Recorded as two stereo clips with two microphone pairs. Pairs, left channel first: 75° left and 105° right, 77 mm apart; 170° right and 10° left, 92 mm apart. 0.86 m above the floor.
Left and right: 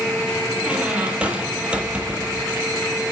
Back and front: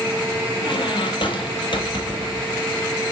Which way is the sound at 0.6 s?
Straight behind.